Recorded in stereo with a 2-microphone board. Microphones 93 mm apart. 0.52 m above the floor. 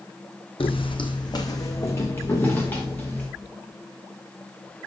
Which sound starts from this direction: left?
Footsteps, at 0.6 s.